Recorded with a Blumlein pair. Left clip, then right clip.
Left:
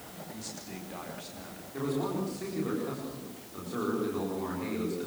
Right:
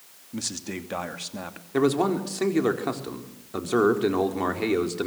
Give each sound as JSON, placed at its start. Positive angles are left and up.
{"t": 0.3, "sound": "a man speaking", "azimuth_deg": -30, "distance_m": 2.5}
{"t": 1.7, "sound": "a man speaking", "azimuth_deg": -35, "distance_m": 4.5}